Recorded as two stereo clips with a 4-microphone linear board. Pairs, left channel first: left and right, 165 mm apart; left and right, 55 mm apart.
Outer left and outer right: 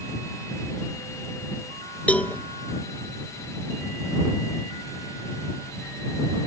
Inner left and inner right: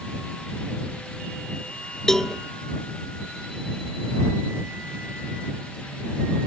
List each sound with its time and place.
2.1 s a cowbell: 10° left (ahead or behind)